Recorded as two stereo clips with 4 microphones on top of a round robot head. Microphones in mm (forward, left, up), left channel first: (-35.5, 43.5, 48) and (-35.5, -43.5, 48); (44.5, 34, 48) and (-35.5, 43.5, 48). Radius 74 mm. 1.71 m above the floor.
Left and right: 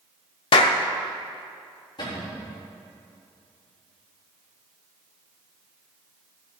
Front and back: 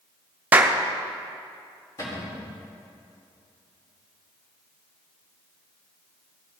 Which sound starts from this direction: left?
A clap, at 0.5 s.